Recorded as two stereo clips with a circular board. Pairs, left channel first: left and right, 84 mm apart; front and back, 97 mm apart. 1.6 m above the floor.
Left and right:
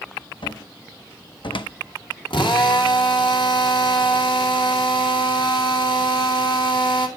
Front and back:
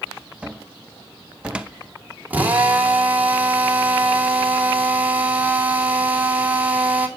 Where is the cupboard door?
100° left, 0.9 m.